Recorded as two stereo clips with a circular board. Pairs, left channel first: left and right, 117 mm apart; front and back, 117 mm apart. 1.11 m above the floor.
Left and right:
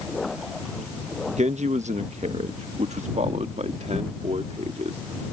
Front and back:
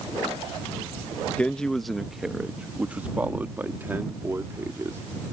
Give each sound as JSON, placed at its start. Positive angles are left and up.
{"t": 1.4, "sound": "a man speaking", "azimuth_deg": -80}